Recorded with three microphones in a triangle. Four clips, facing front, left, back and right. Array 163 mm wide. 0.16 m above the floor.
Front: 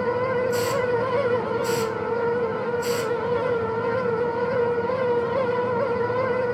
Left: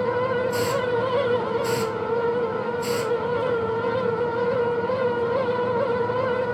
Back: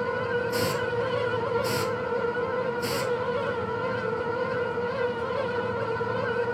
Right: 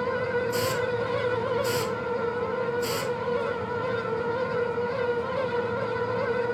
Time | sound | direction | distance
0.5 | a hiss | 155° left | 3 m